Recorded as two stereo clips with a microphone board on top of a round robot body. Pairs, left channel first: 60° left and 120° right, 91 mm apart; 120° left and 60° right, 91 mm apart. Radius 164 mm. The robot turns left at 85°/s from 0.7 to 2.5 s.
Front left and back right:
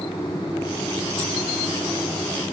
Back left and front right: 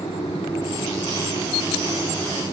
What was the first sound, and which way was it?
Only background noise.